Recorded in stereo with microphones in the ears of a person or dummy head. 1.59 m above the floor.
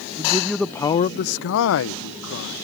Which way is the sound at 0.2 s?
15° right (ahead or behind).